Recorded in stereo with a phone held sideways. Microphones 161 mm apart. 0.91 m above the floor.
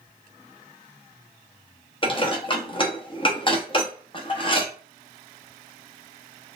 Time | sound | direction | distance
2.0 | dishes clattering | 30° left (ahead or behind) | 0.8 m